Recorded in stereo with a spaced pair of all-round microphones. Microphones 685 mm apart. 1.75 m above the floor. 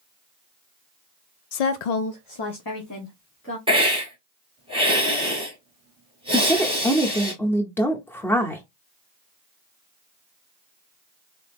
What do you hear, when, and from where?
1.5 s a woman speaking: 60° left (ahead or behind), 0.5 m; by 3.6 s 15° left (ahead or behind), 1.5 m
3.7 s a hiss: 10° right (ahead or behind), 3 m
6.3 s a woman speaking: 5° left (ahead or behind), 0.8 m